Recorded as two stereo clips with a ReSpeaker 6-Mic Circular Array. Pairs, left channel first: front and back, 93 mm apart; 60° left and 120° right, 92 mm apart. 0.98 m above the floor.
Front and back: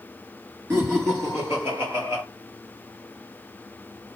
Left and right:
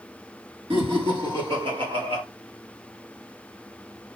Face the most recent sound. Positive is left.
turn(degrees=-115)